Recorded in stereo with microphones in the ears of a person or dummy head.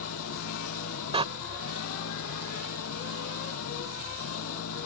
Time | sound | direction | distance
0.0 | an engine running | 80° left | ?
1.1 | a door slam | 30° right (ahead or behind) | ?